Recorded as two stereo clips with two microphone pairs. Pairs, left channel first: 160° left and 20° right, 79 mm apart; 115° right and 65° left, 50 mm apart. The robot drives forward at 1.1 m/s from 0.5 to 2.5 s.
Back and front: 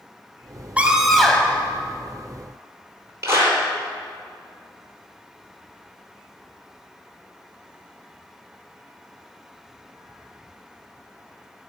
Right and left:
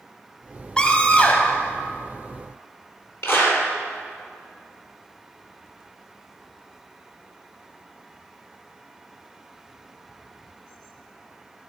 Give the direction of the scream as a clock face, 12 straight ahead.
2 o'clock.